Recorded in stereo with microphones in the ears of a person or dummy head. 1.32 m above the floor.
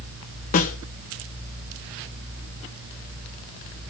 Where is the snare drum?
35° left (ahead or behind), 0.7 m.